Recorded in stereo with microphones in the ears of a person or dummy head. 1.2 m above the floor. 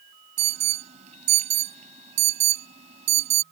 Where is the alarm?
40° right (ahead or behind).